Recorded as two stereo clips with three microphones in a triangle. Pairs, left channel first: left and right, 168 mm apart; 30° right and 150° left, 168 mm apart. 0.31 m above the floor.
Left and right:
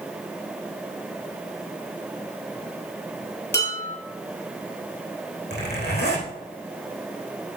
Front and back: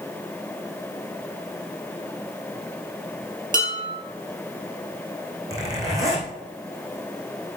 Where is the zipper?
80° left, 3.5 m.